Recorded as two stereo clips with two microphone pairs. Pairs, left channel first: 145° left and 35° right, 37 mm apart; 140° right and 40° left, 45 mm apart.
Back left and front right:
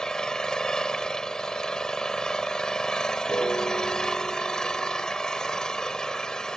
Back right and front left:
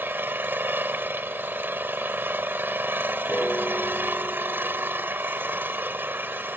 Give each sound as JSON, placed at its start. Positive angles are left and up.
{"t": 0.0, "sound": "an engine running", "azimuth_deg": 75}
{"t": 3.3, "sound": "a piano", "azimuth_deg": 155}